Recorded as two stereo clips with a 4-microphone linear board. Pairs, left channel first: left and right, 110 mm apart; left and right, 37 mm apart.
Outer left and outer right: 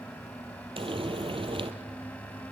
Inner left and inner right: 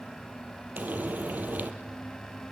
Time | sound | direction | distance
0.8 | frying | 55° right (ahead or behind) | 2 m